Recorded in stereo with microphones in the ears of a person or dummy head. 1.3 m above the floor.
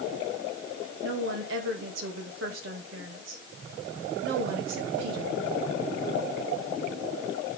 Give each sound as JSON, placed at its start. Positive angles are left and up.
{"t": 1.0, "sound": "a woman speaking", "side_deg": -75, "distance_m": 1.8}